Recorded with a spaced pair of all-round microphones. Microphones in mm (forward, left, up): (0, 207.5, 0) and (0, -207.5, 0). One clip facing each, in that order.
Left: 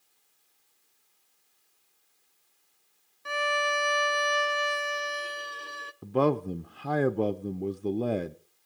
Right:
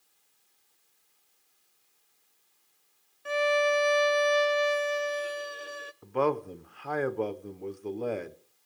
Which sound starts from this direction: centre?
A violin, at 3.2 s.